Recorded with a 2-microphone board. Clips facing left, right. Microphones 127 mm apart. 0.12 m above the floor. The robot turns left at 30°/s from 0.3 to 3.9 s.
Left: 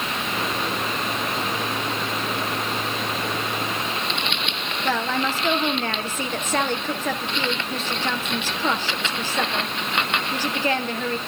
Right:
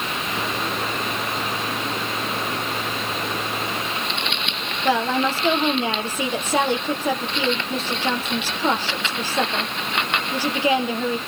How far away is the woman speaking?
About 3 m.